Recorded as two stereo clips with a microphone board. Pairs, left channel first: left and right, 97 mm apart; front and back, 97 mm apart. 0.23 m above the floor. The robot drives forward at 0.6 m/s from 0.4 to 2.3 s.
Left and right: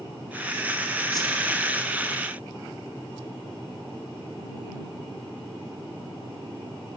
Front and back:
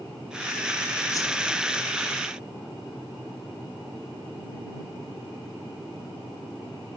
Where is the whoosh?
45° left, 0.9 m; by 1.5 s 60° left, 0.8 m.